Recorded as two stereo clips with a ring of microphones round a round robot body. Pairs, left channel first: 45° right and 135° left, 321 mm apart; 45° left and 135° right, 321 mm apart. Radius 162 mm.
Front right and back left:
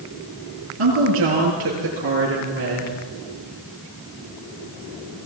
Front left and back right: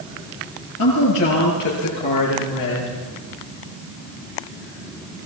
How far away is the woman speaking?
About 9.5 m.